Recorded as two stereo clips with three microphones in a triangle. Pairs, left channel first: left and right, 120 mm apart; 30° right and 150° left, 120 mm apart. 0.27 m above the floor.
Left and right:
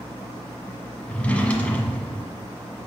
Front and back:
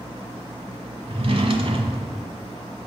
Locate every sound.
1.1 s a drawer: 165° left, 1.3 m